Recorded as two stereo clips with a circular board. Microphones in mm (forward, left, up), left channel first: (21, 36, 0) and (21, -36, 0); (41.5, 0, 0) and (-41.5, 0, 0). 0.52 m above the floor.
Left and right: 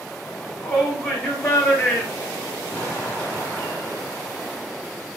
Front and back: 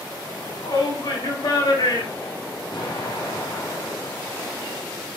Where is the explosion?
25° left, 3.5 m.